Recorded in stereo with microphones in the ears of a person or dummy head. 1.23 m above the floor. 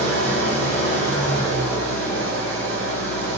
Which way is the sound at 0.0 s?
15° left (ahead or behind).